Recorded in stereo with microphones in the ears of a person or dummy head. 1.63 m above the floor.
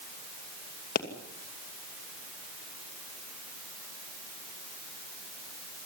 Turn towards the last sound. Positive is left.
turn(degrees=50)  # may be behind; listen again after turning